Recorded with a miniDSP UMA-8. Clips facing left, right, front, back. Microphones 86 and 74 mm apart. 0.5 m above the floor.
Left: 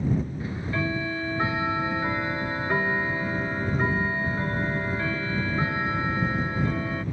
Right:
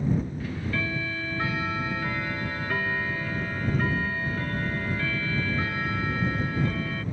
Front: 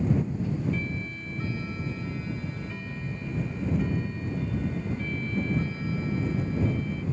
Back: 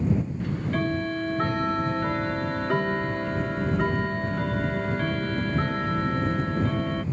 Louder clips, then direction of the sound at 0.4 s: Left 2 dB, back 3 dB; 155° left.